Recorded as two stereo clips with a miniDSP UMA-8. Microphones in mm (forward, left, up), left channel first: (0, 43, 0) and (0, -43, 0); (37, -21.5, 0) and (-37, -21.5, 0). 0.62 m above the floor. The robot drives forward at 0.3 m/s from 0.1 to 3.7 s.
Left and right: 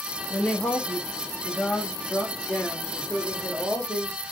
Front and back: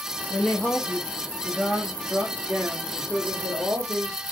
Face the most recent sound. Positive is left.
turn(degrees=170)